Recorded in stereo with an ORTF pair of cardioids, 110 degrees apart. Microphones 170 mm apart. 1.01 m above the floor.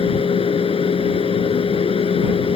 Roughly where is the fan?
Ahead left.